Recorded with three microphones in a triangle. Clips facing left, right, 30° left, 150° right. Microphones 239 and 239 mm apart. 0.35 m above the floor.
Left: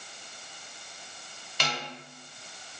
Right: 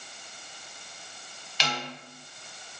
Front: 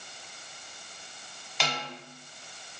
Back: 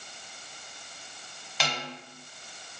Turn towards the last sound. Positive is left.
turn(degrees=120)